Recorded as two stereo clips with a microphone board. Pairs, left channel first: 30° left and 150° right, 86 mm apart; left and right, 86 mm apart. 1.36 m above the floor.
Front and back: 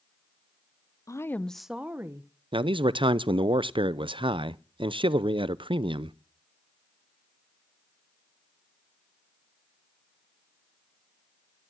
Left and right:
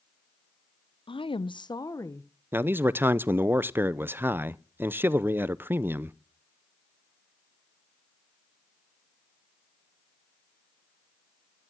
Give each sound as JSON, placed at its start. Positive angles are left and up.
{"t": 1.1, "sound": "a woman speaking", "azimuth_deg": 80, "distance_m": 0.7}
{"t": 2.5, "sound": "a man speaking", "azimuth_deg": -155, "distance_m": 0.6}